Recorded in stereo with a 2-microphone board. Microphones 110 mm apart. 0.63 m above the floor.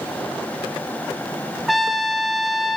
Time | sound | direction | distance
1.7 | a trumpet | centre (ahead or behind) | 1.2 m